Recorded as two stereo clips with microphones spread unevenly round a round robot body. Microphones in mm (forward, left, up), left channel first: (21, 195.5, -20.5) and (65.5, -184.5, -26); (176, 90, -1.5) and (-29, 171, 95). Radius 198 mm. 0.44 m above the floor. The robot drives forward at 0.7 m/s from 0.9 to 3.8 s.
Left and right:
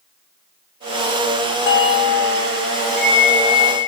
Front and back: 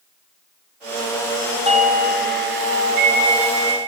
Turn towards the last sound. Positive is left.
turn(degrees=160)